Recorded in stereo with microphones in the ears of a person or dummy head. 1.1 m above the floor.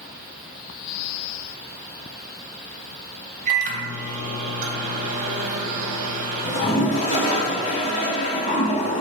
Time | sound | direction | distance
3.5 | a microwave | 45° right (ahead or behind) | 0.8 m
6.4 | a toilet flushing | 45° left (ahead or behind) | 1.5 m